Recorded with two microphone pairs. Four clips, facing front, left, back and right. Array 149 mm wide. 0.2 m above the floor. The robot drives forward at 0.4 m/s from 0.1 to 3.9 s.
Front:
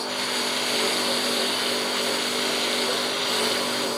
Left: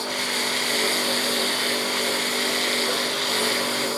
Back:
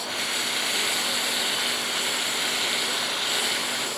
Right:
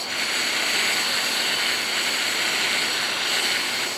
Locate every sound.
0.0 s a lawn mower: 45° left; by 4.0 s 50° left